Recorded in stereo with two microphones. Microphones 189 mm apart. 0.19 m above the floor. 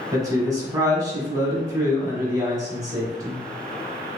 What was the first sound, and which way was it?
A man speaking, 20° right (ahead or behind).